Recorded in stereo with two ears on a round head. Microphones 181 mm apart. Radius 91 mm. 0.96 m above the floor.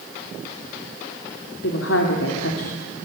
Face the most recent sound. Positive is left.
turn(degrees=70)  # may be behind; listen again after turning